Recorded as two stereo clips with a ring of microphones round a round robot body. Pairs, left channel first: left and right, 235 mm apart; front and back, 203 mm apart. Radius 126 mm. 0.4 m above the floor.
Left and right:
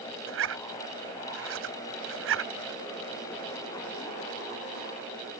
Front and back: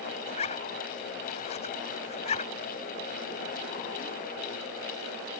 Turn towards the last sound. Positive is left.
turn(degrees=-60)